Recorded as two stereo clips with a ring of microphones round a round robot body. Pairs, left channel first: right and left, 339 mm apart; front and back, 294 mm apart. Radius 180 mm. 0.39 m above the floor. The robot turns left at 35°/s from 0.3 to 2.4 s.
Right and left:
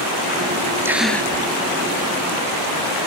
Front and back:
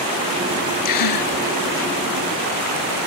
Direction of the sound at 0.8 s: 5° left.